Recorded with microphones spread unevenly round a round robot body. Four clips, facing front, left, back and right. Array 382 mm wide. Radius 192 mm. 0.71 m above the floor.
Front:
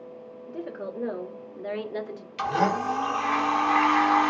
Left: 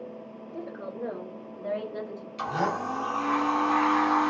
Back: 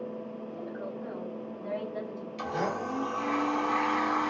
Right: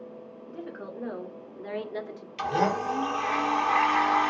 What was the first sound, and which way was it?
A woman speaking, 5° left.